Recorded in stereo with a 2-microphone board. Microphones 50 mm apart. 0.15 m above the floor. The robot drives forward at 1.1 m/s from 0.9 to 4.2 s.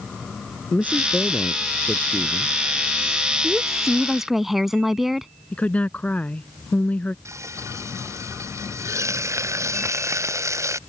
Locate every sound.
0.7 s a man speaking: 30° left (ahead or behind); by 2.5 s 20° left (ahead or behind)
3.4 s a woman speaking: 5° right (ahead or behind)
5.5 s a woman speaking: 30° left (ahead or behind)
7.2 s frying: 85° right